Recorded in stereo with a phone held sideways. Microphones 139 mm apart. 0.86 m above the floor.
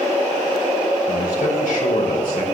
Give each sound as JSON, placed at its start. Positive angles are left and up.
{"t": 1.1, "sound": "a man speaking", "side_deg": 85, "distance_m": 3.5}